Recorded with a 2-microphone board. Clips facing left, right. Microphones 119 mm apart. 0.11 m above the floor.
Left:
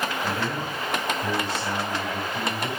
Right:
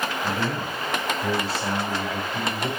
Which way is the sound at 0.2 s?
35° right (ahead or behind).